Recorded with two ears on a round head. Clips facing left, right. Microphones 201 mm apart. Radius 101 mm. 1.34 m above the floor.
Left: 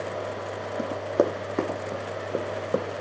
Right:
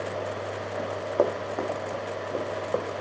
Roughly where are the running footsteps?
Left.